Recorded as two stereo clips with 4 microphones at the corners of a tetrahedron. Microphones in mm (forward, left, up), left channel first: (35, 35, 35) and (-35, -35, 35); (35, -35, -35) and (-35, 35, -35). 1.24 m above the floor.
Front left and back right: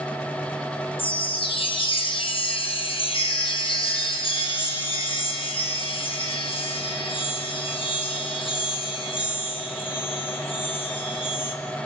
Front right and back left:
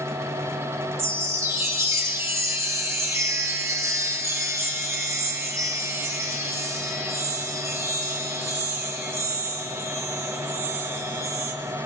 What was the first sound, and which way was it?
A chime, 70° left.